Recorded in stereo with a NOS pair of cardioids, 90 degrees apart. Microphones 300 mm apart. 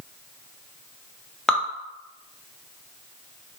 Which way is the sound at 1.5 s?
5° left.